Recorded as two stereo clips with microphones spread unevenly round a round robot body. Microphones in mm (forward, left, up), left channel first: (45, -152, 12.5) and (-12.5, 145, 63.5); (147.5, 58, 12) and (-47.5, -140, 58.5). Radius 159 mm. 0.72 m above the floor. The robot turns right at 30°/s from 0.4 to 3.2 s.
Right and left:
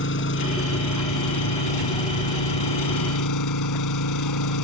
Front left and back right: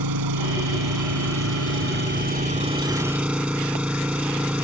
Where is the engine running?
135° right; by 4.6 s 50° right.